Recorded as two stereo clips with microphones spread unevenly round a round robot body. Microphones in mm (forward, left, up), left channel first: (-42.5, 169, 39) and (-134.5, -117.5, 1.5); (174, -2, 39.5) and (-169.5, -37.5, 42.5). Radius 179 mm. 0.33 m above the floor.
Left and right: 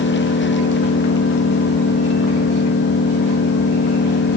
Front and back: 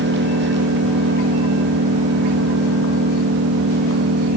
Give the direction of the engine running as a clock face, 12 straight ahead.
8 o'clock.